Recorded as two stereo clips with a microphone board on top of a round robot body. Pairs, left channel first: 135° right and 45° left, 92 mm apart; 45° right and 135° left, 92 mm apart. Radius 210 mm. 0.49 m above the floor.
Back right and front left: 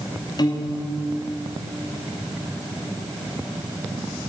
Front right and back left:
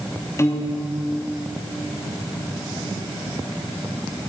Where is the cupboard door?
I don't hear a cupboard door.